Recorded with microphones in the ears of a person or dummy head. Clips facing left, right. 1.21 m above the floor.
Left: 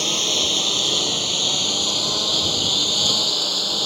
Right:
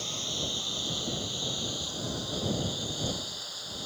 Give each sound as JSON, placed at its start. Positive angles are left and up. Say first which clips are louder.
{"t": 0.0, "sound": "a lawn mower", "louder": "left 11 dB", "side_deg": 80}